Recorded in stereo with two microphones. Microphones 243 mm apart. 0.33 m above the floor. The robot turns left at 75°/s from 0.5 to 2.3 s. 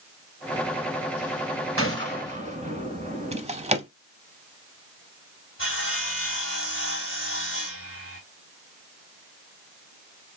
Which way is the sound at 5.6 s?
55° left (ahead or behind).